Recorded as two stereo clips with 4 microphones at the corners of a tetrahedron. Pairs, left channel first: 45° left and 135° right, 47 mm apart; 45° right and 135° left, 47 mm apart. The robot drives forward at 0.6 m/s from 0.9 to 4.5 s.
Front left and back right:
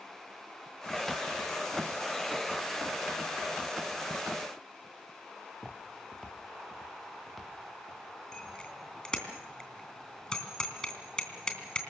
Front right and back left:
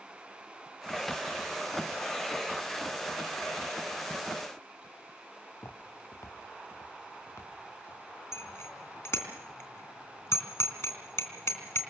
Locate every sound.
5.5 s footsteps: 50° right, 2.5 m; by 9.3 s 40° right, 8 m
8.3 s a bicycle bell: 30° right, 3 m